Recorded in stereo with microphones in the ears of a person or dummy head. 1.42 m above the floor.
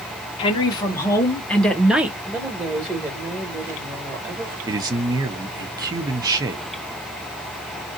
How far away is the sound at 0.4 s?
About 1.7 m.